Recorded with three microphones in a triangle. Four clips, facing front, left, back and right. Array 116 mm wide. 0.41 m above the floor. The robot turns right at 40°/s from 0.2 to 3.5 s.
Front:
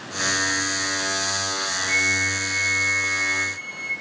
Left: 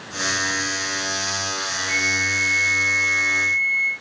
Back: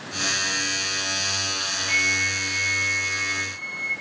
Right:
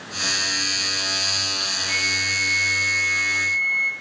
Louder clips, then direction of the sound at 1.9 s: Left 3 dB, even; 145° right.